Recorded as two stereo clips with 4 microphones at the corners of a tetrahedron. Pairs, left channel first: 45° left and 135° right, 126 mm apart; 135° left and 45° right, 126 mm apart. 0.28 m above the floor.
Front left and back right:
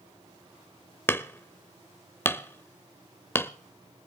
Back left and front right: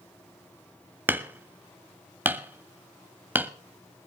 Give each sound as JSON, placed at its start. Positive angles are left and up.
{"t": 1.1, "sound": "hammering", "azimuth_deg": 0, "distance_m": 0.8}